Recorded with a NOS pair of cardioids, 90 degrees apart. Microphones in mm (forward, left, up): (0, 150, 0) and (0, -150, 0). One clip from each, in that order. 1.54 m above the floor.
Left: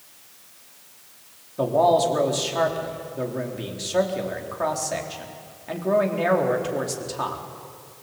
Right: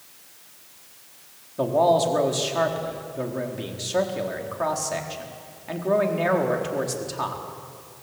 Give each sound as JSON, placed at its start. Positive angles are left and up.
{"t": 1.6, "sound": "a man speaking", "azimuth_deg": 0, "distance_m": 4.0}